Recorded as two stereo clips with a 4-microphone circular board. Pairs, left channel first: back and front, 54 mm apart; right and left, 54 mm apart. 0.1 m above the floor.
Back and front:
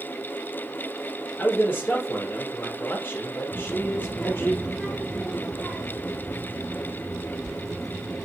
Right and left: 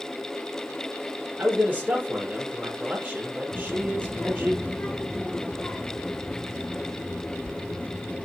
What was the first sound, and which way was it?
A man speaking, 140° left.